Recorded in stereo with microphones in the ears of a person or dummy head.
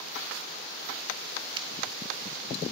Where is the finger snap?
20° right (ahead or behind), 2.5 m.